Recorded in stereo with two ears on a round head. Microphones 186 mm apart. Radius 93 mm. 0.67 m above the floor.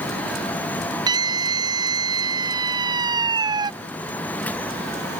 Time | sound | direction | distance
1.1 | a scream | 20° right (ahead or behind) | ?